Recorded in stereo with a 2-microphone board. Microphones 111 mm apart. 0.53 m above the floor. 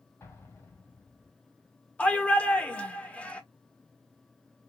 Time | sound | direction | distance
0.2 | an explosion | 25° left (ahead or behind) | 2 m
2.0 | a shout | 10° left (ahead or behind) | 1.4 m